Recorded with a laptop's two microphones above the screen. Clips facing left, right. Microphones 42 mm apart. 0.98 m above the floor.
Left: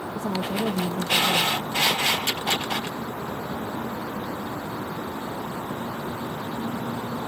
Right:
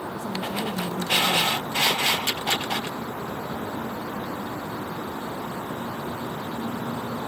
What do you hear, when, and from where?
0.1 s a woman speaking: 55° left (ahead or behind), 1.0 m